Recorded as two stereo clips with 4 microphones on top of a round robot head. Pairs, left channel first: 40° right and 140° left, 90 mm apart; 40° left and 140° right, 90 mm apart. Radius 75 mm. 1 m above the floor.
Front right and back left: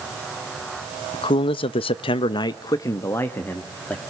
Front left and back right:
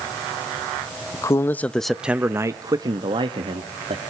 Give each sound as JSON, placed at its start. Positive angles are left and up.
{"t": 1.1, "sound": "a man speaking", "azimuth_deg": -10, "distance_m": 1.1}